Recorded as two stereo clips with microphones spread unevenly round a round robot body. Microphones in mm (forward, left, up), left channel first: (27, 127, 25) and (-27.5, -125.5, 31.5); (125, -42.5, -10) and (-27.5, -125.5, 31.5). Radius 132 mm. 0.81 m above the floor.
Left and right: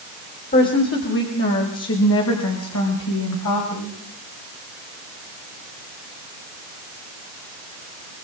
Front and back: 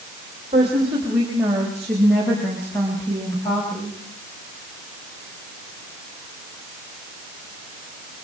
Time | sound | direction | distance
0.5 | a woman speaking | 135° left | 3.5 m